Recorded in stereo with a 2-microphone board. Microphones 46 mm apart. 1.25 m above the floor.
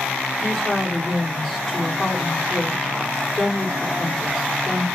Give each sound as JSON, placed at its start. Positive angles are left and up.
{"t": 0.4, "sound": "a woman speaking", "side_deg": 10, "distance_m": 1.0}